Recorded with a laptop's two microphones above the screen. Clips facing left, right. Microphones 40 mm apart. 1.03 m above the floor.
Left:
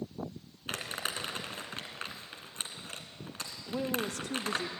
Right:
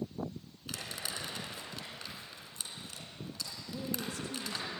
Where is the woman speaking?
75° left (ahead or behind), 1.1 m.